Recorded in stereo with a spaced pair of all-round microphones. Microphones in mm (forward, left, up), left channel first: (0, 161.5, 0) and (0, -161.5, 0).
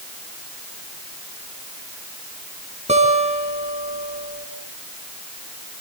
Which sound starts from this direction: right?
A guitar, at 2.9 s.